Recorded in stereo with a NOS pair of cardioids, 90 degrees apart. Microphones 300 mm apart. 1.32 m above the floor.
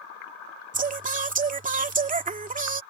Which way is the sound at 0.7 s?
25° right.